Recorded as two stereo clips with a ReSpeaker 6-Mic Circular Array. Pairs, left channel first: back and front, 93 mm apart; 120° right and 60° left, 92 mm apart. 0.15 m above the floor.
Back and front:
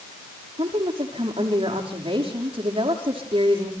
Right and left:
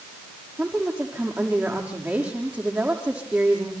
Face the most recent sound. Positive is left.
turn(degrees=-15)